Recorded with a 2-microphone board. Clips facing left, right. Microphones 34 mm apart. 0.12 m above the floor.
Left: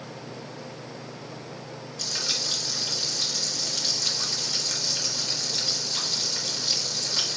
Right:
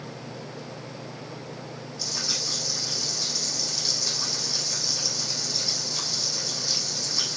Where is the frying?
65° left (ahead or behind), 4.5 m.